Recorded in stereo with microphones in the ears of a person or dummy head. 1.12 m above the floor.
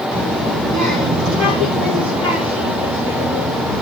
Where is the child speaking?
50° right (ahead or behind), 5 m; by 3.8 s 80° right, 7.5 m.